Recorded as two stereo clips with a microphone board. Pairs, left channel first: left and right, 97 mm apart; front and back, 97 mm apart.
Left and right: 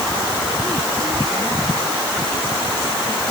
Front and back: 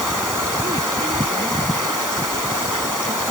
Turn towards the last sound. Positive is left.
No sound to turn to.